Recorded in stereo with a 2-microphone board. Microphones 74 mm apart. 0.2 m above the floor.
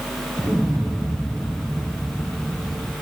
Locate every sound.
0.4 s an explosion: 15° right (ahead or behind), 3 m